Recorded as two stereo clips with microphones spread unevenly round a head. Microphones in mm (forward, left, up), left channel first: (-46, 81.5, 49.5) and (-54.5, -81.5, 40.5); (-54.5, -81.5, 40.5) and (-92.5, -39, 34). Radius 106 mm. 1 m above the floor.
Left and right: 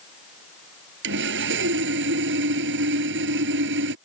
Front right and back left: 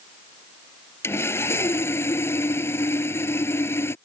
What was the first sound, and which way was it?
Sawing, 90° right.